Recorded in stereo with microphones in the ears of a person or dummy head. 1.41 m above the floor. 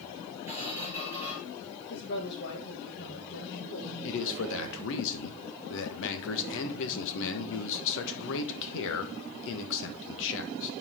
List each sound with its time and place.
0.5 s a squeak: 10° right (ahead or behind), 5.5 m
1.9 s a woman speaking: 50° left (ahead or behind), 1.9 m
4.0 s a man speaking: 70° left (ahead or behind), 1.3 m